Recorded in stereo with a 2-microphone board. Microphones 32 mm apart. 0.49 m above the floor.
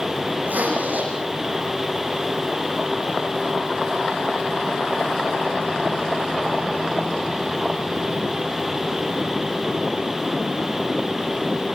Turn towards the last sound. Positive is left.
turn(degrees=-70)  # may be behind; listen again after turning